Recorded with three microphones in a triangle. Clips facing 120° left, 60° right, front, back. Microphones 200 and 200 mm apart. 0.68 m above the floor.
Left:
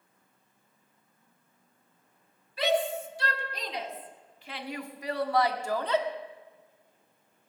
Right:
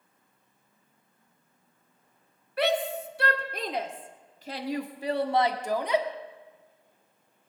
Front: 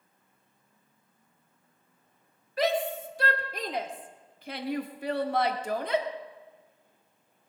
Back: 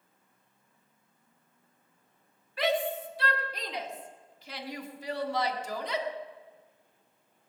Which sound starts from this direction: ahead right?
A shout, at 2.6 s.